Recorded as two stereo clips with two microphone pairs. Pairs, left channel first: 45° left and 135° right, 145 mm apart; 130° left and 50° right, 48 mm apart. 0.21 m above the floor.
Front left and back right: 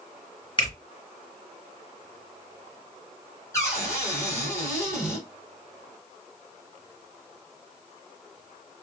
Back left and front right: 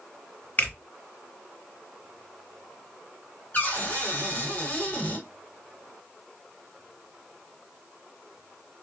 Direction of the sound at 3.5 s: 100° left.